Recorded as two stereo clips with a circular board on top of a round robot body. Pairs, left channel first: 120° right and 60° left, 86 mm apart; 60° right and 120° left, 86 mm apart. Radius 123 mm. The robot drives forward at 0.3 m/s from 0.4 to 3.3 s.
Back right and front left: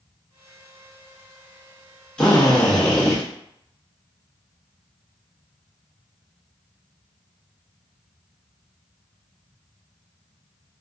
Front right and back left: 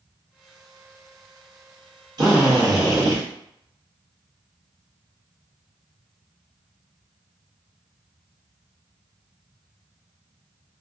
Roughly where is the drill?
Behind.